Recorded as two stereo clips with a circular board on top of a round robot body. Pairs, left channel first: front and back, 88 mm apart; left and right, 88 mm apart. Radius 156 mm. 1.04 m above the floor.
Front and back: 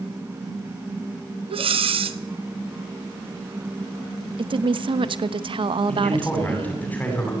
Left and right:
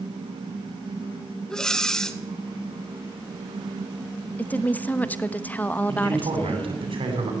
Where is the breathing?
175° left, 1.6 m.